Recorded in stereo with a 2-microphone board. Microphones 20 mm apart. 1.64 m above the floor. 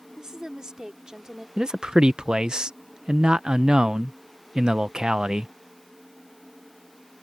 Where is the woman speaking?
30° right (ahead or behind).